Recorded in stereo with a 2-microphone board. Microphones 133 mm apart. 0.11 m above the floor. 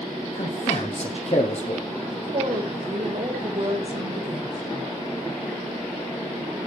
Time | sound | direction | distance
0.3 | a man speaking | 55° left (ahead or behind) | 3 m
2.1 | a woman speaking | 50° right (ahead or behind) | 6 m